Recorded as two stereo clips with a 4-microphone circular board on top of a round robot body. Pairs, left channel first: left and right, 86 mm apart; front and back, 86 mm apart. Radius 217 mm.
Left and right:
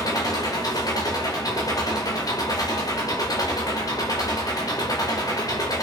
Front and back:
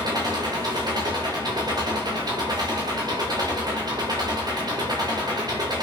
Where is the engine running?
140° left, 3 m.